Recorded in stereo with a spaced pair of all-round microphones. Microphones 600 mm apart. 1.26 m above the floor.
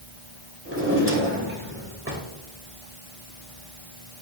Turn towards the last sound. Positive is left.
turn(degrees=-20)  # may be behind; listen again after turning